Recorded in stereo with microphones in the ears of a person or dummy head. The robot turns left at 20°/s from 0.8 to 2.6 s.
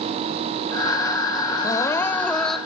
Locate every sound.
1.6 s crying: 20° left (ahead or behind); by 2.6 s centre (ahead or behind)